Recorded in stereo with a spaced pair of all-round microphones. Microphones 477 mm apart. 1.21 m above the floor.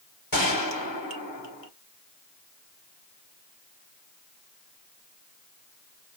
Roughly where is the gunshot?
Left.